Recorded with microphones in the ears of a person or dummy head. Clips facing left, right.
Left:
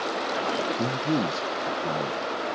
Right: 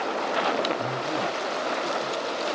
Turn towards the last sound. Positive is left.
turn(degrees=65)  # may be behind; listen again after turning